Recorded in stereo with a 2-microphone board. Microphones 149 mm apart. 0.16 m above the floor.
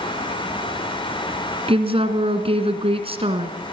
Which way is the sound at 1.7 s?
40° right (ahead or behind).